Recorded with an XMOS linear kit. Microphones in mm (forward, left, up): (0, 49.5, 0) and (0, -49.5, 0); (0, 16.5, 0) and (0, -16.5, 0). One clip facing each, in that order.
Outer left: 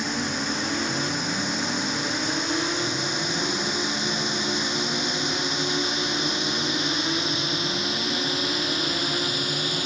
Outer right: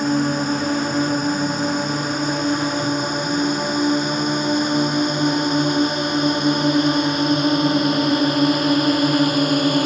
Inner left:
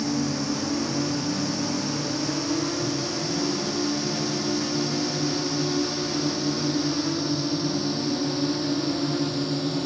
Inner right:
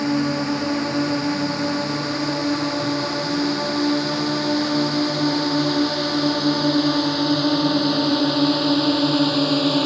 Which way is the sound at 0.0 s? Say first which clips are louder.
Outer right 9 dB, inner right 5 dB; 50° right (ahead or behind).